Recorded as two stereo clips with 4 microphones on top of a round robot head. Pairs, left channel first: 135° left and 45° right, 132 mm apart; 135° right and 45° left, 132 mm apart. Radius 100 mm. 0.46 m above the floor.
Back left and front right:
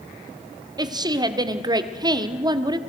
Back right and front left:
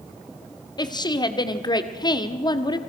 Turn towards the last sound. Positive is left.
turn(degrees=-90)